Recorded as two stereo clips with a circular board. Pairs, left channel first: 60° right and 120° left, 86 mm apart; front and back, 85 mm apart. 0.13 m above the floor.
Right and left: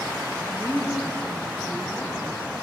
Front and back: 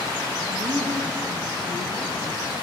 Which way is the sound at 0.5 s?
140° right.